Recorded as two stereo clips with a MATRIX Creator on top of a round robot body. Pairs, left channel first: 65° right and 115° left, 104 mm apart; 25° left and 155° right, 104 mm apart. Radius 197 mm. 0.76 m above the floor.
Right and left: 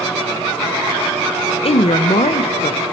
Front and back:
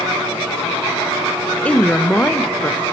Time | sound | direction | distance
1.6 | a woman speaking | 55° right | 0.8 m